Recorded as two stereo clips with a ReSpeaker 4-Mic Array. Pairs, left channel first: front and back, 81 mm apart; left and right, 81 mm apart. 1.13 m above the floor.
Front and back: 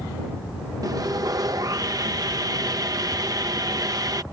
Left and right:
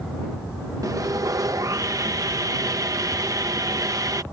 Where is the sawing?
135° right.